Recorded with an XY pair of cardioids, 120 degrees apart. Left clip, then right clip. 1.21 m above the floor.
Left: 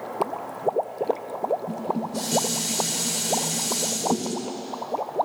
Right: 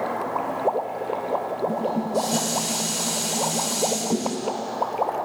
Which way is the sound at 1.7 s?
20° left.